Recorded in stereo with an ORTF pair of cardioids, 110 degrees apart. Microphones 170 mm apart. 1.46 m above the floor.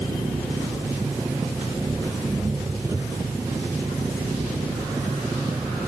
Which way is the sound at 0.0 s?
15° right.